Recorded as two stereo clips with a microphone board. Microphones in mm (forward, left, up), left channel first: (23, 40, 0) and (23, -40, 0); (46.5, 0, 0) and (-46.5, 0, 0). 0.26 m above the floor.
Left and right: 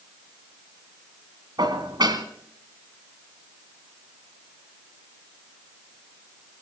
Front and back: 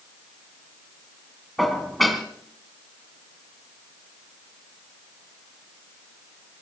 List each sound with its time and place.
1.6 s dishes clattering: 90° right, 1.7 m